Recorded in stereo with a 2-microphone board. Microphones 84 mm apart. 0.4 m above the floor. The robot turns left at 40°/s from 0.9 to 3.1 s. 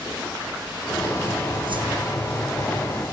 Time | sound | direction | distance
1.7 | a whoosh | 75° right (ahead or behind) | 4.5 m